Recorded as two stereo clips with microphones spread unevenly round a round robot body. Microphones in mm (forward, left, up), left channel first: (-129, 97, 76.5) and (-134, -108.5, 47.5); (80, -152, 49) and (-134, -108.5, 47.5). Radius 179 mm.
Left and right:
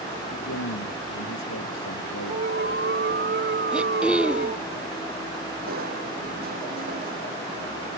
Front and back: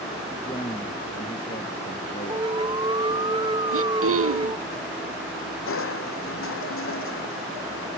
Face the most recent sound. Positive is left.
turn(degrees=-30)